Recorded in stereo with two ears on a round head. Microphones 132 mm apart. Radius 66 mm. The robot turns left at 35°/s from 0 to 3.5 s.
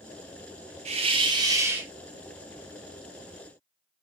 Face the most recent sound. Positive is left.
turn(degrees=135)